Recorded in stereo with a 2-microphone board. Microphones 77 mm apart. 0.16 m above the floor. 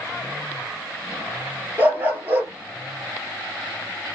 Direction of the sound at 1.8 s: 25° right (ahead or behind).